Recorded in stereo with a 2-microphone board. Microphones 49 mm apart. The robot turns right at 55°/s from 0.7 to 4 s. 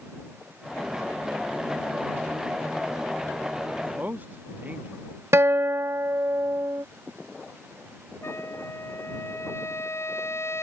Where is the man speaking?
35° right (ahead or behind).